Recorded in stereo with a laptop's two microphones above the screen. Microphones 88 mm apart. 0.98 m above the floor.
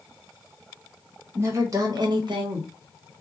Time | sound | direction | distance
1.4 | a woman speaking | 25° right (ahead or behind) | 0.9 m